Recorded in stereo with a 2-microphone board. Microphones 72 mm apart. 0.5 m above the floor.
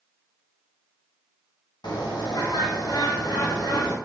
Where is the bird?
85° left, 0.7 m.